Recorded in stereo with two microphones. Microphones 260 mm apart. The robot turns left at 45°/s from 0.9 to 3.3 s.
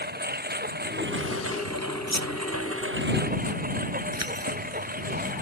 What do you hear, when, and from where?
0.0 s a lawn mower: 40° right; by 5.4 s 145° right
2.1 s a squeak: 85° right; by 2.3 s 80° right
4.1 s keys jangling: 70° right (ahead or behind)